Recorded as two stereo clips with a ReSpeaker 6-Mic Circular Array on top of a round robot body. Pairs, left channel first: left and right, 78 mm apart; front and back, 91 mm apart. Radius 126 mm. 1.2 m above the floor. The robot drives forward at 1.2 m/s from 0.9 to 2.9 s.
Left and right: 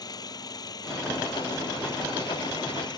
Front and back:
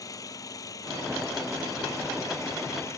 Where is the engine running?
55° left; by 3.0 s 60° left.